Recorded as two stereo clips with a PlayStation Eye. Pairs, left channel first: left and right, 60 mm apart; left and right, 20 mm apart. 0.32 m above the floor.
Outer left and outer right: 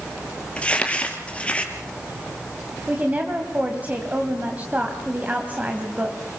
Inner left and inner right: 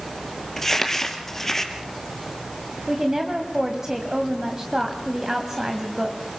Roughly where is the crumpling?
Centre.